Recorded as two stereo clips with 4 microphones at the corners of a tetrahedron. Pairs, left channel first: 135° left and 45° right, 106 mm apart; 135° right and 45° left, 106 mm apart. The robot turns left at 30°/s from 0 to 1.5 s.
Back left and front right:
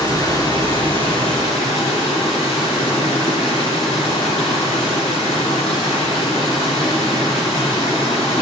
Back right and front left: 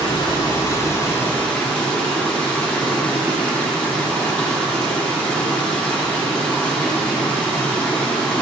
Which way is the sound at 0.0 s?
170° right.